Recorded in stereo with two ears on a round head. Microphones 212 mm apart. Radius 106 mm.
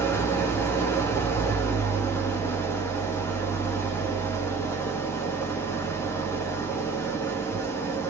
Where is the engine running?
10° left (ahead or behind), 0.7 m.